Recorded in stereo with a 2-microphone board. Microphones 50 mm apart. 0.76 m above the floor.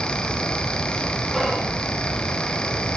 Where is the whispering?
Centre (ahead or behind), 1.2 m.